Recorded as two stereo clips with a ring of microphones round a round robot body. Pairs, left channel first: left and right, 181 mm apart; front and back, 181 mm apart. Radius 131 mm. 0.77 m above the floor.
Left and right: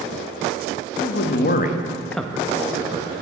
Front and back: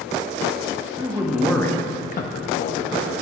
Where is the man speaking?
110° left, 1.0 m; by 3.2 s 35° right, 1.3 m.